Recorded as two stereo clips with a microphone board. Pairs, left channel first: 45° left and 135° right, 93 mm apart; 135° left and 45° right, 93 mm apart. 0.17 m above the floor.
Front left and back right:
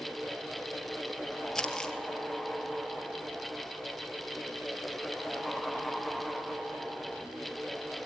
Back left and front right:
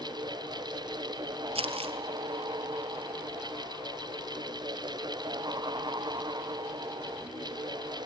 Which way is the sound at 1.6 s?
40° right.